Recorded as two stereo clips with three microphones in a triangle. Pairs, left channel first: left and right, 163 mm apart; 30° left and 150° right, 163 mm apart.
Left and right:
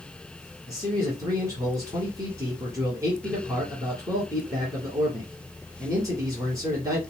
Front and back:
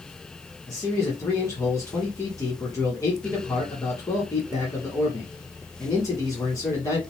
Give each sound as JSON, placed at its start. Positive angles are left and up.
{"t": 0.7, "sound": "a man speaking", "azimuth_deg": -30, "distance_m": 1.5}